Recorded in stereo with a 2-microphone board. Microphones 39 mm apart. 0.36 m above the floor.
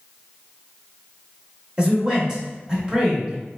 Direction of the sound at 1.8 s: 20° right (ahead or behind).